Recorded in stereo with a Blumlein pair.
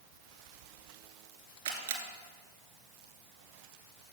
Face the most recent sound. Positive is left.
turn(degrees=-65)